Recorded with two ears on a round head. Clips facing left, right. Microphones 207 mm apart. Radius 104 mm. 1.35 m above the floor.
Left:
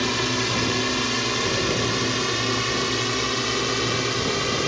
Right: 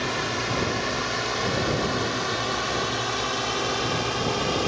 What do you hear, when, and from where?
0.0 s a drone: 50° left (ahead or behind); by 4.7 s 30° left (ahead or behind)